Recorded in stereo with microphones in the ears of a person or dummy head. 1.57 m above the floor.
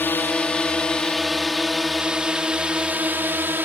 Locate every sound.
0.0 s a drone: 10° left (ahead or behind); by 3.6 s 10° right (ahead or behind)